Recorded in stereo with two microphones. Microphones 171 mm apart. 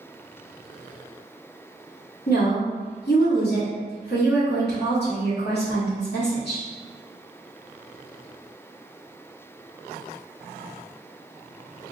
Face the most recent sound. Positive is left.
turn(degrees=75)  # may be behind; listen again after turning